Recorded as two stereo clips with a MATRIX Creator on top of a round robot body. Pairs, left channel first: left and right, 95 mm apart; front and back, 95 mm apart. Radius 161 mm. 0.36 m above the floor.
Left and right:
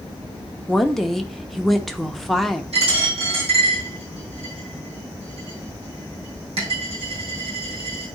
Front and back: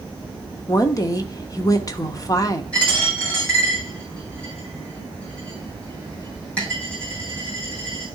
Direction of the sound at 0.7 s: 5° left.